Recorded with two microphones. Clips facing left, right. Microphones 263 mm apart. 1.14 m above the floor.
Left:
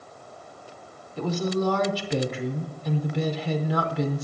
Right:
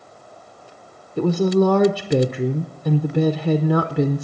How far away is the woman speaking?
About 0.7 m.